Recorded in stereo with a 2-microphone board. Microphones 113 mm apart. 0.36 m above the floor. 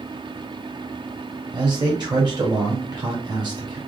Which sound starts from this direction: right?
A man speaking, at 1.5 s.